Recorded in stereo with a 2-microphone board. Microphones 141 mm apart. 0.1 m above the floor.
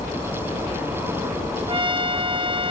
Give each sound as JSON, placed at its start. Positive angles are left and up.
{"t": 1.7, "sound": "a trumpet", "side_deg": -35, "distance_m": 0.6}